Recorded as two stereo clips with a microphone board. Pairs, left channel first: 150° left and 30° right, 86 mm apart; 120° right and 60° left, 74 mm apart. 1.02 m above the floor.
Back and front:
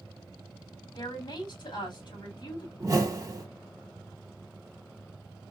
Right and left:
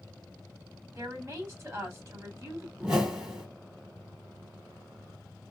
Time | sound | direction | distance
0.9 | a woman speaking | 120° left | 3.5 m
2.8 | a whoosh | 15° right | 1.1 m